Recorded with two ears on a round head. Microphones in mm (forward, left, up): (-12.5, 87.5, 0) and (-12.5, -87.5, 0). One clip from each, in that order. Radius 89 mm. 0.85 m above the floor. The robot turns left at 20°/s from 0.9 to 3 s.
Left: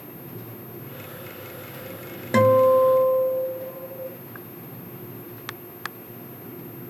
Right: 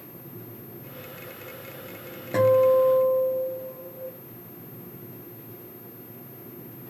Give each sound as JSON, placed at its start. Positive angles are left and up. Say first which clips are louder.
{"t": 2.3, "sound": "a guitar", "louder": "left 2 dB", "side_deg": 45, "distance_m": 0.7}